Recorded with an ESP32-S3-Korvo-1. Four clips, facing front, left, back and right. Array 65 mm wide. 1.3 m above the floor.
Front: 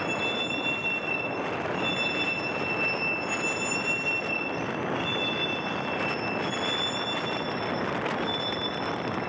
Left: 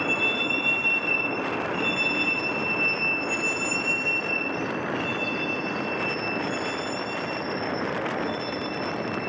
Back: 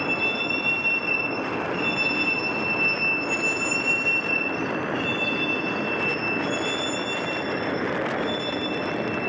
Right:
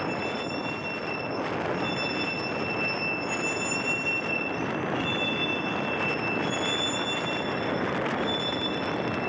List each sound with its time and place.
0.0 s a vehicle: 125° left; by 9.3 s 175° left